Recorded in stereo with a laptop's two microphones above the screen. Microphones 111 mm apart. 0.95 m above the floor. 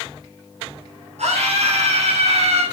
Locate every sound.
1.2 s a scream: 75° right (ahead or behind), 5.5 m